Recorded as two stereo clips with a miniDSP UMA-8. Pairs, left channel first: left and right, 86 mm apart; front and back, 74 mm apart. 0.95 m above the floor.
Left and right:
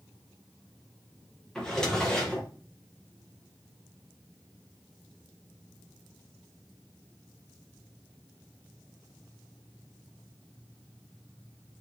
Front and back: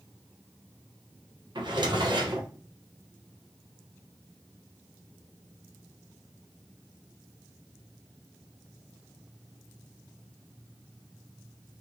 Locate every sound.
1.6 s a drawer: 175° left, 0.8 m